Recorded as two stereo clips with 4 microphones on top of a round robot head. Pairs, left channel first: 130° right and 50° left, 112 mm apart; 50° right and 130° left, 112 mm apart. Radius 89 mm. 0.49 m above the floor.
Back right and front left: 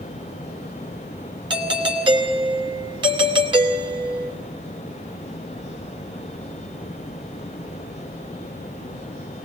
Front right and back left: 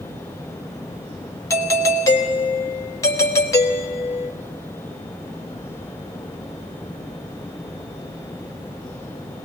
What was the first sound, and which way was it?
A doorbell, 10° left.